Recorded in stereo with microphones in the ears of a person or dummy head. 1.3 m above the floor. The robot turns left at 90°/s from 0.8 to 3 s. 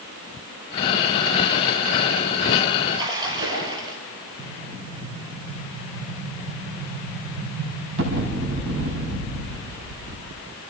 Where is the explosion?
65° right (ahead or behind), 6 m.